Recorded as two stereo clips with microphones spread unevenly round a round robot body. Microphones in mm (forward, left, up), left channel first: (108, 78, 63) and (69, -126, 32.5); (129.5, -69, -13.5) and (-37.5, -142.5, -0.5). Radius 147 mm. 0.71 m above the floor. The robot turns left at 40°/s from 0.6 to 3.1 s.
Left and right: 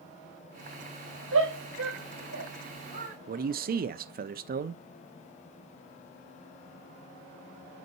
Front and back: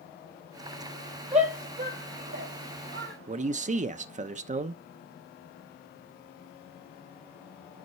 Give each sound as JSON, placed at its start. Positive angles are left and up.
{"t": 1.3, "sound": "a shout", "azimuth_deg": -100, "distance_m": 5.0}
{"t": 3.3, "sound": "a man speaking", "azimuth_deg": -110, "distance_m": 0.6}